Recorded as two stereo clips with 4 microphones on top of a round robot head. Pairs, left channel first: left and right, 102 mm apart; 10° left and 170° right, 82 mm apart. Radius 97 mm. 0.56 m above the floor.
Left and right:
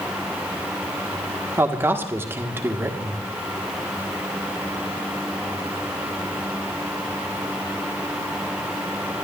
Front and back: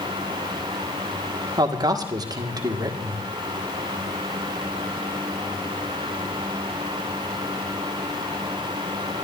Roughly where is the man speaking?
Behind right.